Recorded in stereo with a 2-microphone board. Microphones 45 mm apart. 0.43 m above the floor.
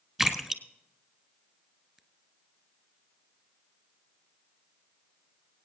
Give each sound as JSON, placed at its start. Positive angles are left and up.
{"t": 0.2, "sound": "a splash", "side_deg": -5, "distance_m": 1.1}